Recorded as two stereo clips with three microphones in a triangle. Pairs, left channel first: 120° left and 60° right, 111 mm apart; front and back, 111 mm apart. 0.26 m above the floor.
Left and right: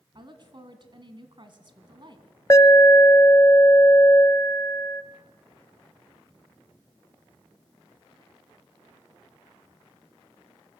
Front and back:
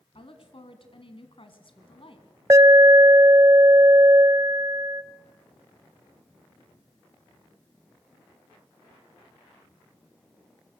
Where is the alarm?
145° left, 0.7 m.